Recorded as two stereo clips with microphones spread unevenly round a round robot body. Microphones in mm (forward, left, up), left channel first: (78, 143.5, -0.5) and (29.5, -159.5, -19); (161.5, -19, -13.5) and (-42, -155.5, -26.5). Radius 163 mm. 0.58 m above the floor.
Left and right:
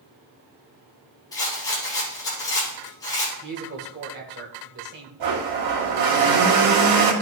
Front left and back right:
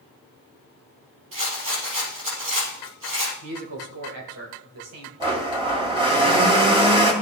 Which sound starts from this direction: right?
A blender, at 5.2 s.